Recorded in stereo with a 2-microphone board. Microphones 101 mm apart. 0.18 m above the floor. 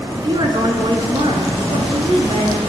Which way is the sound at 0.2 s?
50° right (ahead or behind).